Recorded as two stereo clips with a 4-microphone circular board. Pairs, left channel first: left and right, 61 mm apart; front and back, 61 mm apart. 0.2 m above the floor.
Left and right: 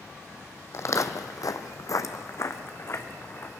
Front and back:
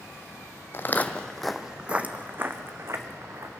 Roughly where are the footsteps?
Ahead left.